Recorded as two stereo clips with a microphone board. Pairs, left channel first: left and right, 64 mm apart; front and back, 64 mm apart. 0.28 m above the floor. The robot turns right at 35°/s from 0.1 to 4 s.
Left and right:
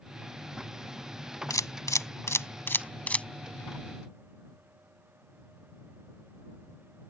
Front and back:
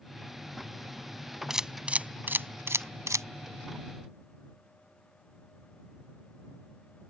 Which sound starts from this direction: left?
A camera shutter, at 1.5 s.